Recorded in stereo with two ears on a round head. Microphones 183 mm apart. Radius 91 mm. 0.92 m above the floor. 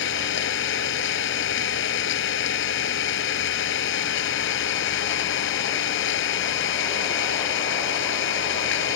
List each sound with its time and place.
0.0 s an engine running: 65° left (ahead or behind)